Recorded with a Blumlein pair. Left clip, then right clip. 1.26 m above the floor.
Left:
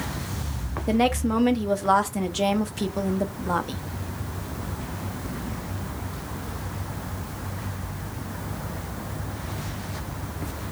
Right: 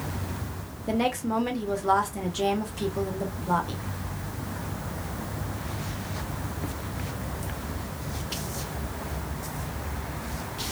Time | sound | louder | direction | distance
0.9 | a woman speaking | left 4 dB | 15° left | 0.8 m